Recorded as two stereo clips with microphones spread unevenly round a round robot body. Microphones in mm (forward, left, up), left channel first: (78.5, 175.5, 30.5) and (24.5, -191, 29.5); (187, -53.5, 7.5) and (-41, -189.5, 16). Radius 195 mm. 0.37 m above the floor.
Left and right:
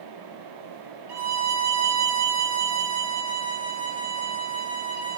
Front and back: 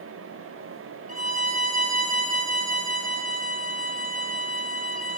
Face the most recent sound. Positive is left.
turn(degrees=-90)